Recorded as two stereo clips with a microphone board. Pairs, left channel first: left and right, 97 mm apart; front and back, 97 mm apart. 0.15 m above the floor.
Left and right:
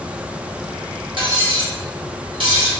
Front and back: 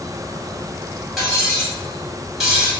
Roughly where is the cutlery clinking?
Right.